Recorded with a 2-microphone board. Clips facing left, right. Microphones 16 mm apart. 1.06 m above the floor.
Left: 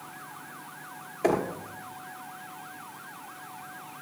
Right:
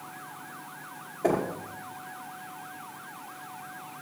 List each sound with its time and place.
1.2 s knocking: 60° left (ahead or behind), 1.8 m